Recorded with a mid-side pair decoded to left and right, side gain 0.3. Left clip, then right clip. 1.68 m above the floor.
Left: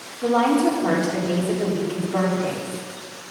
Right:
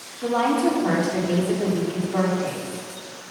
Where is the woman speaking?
15° left, 4 m.